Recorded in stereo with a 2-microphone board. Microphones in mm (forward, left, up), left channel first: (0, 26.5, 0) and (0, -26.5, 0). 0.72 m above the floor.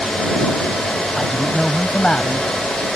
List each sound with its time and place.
1.2 s a man speaking: 5° left (ahead or behind); by 2.5 s 25° left (ahead or behind)